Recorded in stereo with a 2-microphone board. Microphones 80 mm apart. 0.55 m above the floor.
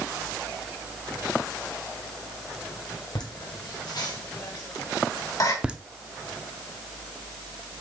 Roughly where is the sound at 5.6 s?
Centre.